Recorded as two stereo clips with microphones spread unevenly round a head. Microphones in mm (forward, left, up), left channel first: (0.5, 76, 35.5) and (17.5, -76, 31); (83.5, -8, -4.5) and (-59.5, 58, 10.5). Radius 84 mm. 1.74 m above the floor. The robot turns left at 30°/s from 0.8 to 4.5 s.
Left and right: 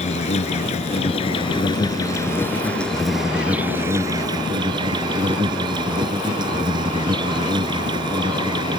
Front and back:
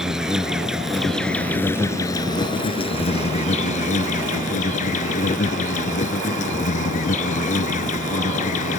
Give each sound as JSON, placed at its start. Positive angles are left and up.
{"t": 0.0, "sound": "an insect", "azimuth_deg": 80}